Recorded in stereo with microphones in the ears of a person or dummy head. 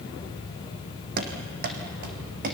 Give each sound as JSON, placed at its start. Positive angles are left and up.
{"t": 1.2, "sound": "running footsteps", "side_deg": -55, "distance_m": 3.0}